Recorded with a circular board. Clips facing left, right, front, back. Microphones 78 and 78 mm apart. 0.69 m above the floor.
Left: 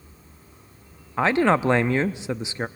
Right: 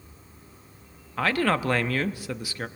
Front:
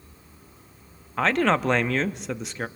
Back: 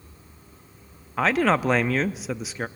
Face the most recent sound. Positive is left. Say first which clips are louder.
# left 5 dB, back 1 dB
turn(degrees=95)